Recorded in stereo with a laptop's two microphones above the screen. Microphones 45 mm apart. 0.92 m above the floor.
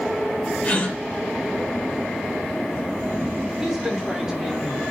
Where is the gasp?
35° left (ahead or behind), 1.4 m.